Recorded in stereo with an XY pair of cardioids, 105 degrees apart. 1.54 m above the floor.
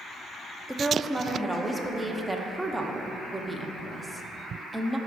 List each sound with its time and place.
0.7 s a woman speaking: 5° right, 0.9 m